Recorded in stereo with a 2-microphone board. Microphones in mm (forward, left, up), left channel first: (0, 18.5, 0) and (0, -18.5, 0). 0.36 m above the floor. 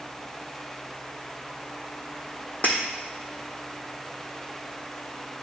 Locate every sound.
2.6 s breaking glass: 50° left (ahead or behind), 1.5 m